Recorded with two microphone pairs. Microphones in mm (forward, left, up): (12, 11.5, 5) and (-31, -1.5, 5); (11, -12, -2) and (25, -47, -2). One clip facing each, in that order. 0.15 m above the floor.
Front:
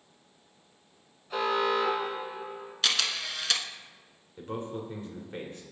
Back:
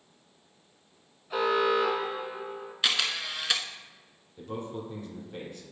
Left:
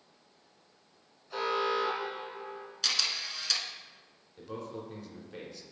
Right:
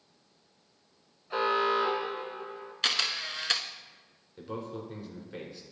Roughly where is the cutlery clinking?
I don't hear cutlery clinking.